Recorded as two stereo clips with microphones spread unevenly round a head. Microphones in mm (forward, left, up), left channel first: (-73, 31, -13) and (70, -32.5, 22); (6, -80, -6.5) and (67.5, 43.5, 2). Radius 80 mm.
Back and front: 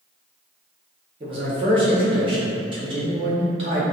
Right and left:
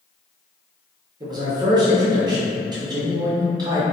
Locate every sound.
1.2 s a man speaking: 30° left, 0.6 m